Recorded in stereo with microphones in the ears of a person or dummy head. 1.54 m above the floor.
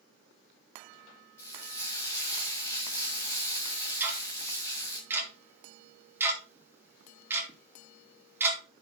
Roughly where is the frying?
Centre.